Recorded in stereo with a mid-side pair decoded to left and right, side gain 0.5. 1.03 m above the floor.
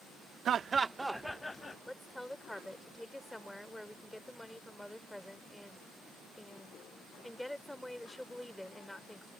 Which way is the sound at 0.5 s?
55° right.